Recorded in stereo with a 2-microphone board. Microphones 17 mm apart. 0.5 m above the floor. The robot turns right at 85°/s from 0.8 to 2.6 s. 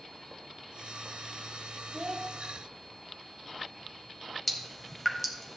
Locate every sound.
1.9 s a child speaking: 75° right, 2.0 m; by 2.3 s 45° right, 2.0 m
4.5 s dripping: 10° left (ahead or behind), 1.5 m